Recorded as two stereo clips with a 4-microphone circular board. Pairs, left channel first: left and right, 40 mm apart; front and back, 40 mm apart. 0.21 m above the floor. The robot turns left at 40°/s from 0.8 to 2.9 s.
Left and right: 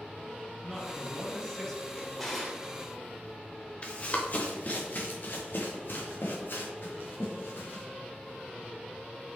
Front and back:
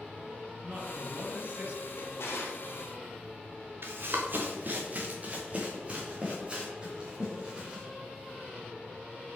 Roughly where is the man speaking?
Behind.